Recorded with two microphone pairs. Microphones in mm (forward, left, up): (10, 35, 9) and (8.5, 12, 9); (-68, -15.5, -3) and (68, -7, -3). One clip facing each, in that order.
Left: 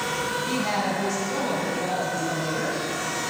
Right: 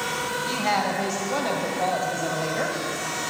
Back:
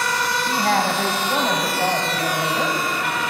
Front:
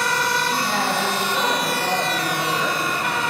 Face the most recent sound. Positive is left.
turn(degrees=-130)